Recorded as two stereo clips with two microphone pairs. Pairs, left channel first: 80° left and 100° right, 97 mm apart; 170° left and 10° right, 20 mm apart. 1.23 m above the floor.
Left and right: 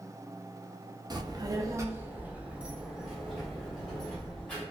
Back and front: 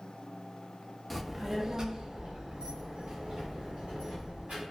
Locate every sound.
1.1 s a child speaking: 105° right, 0.6 m; by 4.6 s 5° right, 1.9 m